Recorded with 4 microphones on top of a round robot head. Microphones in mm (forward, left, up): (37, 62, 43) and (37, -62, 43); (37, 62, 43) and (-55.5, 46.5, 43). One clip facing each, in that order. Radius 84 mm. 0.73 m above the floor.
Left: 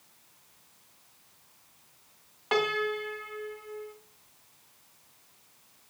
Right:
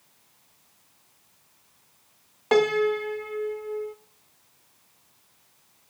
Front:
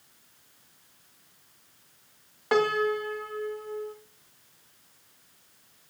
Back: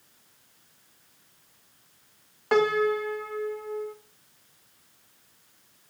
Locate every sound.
2.5 s a piano: 80° right, 0.8 m